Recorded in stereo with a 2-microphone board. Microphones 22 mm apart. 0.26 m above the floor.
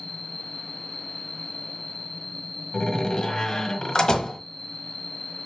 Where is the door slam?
35° left (ahead or behind), 1.3 m.